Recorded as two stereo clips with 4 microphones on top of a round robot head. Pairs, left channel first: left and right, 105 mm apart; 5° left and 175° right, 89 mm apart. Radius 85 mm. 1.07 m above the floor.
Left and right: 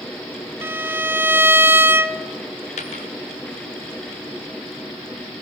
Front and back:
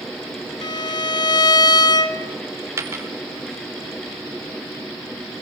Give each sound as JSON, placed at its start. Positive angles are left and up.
{"t": 0.6, "sound": "a violin", "azimuth_deg": -25, "distance_m": 1.1}
{"t": 2.8, "sound": "a dropped coin", "azimuth_deg": 125, "distance_m": 1.7}